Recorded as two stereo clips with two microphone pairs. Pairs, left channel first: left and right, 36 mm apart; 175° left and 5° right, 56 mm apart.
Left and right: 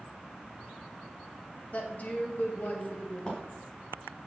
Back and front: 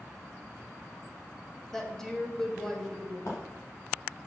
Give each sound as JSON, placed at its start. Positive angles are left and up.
{"t": 1.7, "sound": "a woman speaking", "azimuth_deg": 95, "distance_m": 2.0}
{"t": 3.3, "sound": "footsteps", "azimuth_deg": 150, "distance_m": 3.5}